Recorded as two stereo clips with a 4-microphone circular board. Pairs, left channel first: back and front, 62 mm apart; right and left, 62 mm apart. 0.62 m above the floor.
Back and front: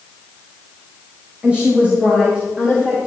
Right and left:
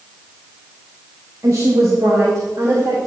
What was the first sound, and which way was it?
A woman speaking, 65° left.